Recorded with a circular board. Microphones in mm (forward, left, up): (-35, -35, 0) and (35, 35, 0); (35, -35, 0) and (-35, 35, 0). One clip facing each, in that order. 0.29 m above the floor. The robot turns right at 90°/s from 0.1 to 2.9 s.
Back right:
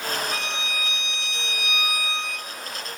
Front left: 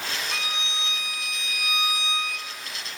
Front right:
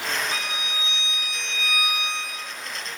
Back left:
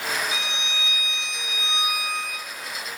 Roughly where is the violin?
Ahead right.